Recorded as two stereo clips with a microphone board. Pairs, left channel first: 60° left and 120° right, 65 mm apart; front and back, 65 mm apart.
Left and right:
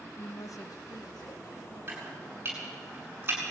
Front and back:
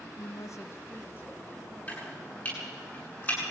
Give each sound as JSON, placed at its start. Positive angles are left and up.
{"t": 0.2, "sound": "a woman speaking", "azimuth_deg": 15, "distance_m": 1.0}
{"t": 1.9, "sound": "chopping", "azimuth_deg": -60, "distance_m": 8.0}